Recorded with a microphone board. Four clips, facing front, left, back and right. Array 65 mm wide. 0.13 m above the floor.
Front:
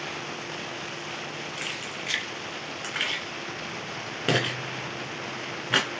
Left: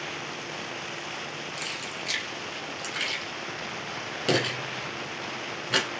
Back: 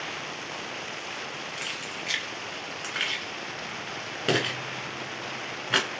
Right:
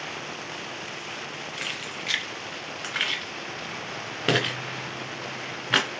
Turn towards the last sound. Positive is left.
turn(degrees=-85)